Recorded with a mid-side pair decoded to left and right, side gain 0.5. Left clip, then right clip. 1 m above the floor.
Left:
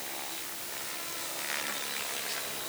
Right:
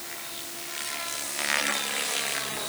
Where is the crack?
No crack in this recording.